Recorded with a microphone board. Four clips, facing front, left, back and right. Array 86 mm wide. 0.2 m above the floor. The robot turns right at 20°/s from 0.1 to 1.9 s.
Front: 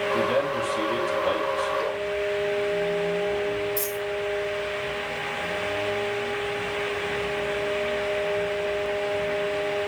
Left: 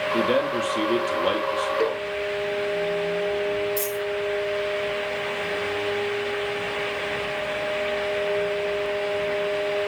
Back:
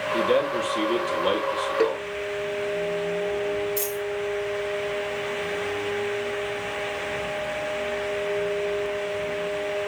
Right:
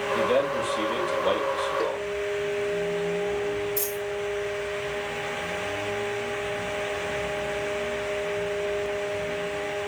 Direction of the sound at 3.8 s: 155° left.